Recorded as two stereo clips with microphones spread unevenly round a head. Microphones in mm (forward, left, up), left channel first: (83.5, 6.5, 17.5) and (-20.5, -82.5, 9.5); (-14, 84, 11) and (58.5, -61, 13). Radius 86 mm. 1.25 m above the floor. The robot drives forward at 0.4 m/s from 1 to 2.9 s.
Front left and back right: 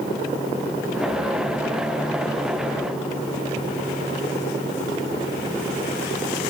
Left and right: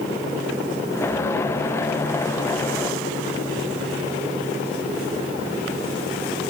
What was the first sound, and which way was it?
Only background noise.